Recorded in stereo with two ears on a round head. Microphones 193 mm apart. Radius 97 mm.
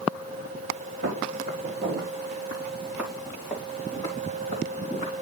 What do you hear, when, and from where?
1.0 s footsteps: 45° right (ahead or behind), 4.5 m; by 5.1 s 35° left (ahead or behind), 4.5 m